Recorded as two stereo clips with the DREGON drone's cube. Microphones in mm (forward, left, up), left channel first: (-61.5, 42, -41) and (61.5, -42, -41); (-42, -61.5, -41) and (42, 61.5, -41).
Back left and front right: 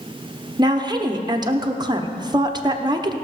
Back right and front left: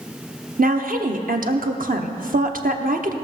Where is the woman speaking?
30° left, 1.0 m.